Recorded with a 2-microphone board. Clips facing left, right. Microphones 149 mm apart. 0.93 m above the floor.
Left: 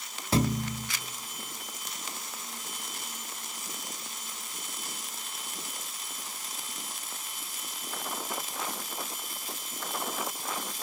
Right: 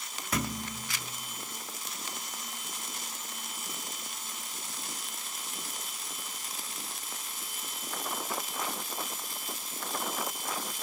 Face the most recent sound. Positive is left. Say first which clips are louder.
# left 7 dB
turn(degrees=30)  # may be behind; listen again after turning